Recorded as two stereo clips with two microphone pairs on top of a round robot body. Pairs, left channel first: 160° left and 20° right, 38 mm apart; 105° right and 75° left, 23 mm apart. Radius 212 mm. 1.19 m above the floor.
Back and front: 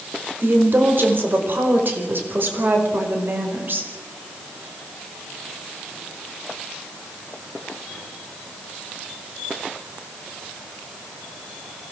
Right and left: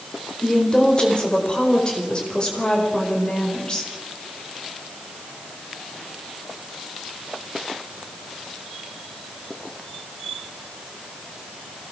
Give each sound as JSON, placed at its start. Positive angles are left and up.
{"t": 0.4, "sound": "a woman speaking", "azimuth_deg": -50, "distance_m": 5.0}